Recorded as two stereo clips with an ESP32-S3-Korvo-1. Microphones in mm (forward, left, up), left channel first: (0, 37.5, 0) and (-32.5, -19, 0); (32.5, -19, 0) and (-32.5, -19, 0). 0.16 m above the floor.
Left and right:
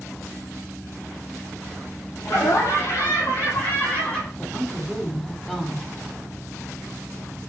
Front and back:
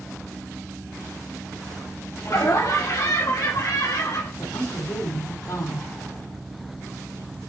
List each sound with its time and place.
2.2 s laughter: 30° left, 5 m; by 4.3 s 5° right, 4 m
4.4 s a woman speaking: 25° right, 5 m